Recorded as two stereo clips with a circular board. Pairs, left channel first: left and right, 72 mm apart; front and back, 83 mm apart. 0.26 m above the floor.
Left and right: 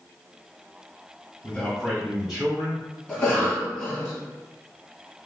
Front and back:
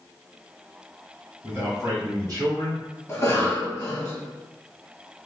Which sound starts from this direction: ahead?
A cough, at 3.1 s.